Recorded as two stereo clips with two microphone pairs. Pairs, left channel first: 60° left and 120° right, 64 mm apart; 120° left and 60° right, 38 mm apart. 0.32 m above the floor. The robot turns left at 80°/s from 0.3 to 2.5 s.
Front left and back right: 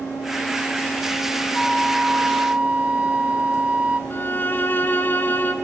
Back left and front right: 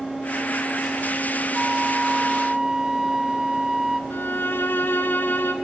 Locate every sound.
1.5 s a flute: 15° right, 0.9 m; by 4.0 s 90° right, 0.9 m
4.1 s a violin: 110° left, 1.6 m